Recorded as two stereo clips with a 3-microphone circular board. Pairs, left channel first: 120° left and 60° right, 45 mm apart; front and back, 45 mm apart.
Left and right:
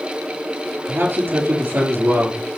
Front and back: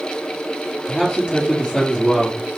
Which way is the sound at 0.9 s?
65° right.